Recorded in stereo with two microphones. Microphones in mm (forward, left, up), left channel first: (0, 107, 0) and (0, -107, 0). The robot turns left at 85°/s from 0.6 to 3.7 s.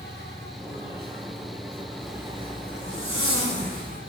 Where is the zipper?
15° left, 1.7 m; by 4.0 s 135° right, 1.7 m.